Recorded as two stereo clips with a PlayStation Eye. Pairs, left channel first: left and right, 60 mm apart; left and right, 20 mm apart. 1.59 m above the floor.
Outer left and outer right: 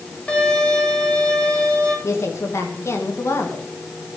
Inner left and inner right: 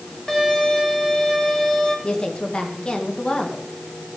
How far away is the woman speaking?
About 2 m.